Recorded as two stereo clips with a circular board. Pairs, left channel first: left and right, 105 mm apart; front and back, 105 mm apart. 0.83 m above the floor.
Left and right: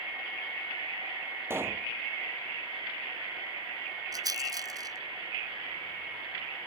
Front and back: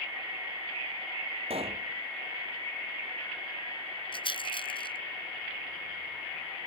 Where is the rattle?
35° right.